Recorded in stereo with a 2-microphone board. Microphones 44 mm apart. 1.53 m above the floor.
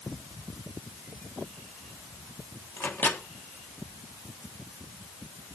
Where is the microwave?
60° left (ahead or behind), 1.5 m.